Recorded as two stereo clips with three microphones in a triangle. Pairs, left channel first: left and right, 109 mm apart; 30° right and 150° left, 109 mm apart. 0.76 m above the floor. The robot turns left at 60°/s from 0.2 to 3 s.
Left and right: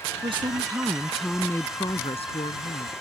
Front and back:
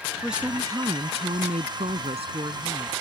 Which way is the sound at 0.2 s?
120° right.